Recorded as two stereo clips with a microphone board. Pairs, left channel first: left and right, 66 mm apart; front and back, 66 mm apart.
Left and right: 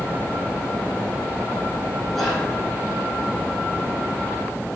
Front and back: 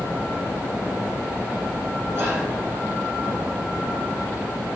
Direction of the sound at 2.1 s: 170° left.